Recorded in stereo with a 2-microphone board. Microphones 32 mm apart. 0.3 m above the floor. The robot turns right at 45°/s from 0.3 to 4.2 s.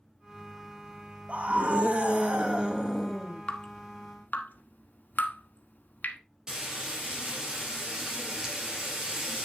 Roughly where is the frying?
Right.